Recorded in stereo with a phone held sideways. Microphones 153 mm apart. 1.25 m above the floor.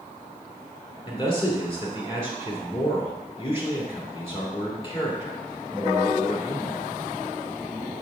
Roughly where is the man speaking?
Left.